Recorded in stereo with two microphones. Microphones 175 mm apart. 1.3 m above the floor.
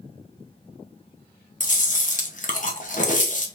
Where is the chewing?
50° left (ahead or behind), 0.7 m.